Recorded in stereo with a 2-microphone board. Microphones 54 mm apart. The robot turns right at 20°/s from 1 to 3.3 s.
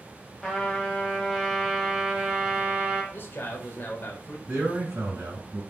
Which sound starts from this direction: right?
A man speaking, at 4.5 s.